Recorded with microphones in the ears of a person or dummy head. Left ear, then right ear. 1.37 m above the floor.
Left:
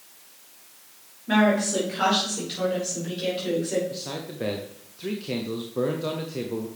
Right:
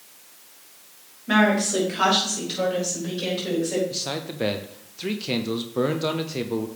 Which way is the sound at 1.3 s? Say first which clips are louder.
Right 2 dB; 15° right (ahead or behind).